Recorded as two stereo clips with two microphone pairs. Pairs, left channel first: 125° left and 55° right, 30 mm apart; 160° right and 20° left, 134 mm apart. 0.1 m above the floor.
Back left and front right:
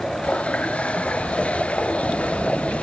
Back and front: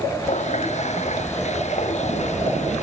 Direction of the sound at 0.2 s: 170° left.